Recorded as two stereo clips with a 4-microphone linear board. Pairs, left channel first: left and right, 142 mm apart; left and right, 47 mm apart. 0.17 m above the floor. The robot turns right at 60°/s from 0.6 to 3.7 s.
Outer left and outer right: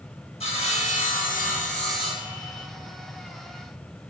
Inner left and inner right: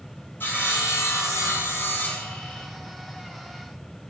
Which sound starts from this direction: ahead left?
Sawing, at 0.4 s.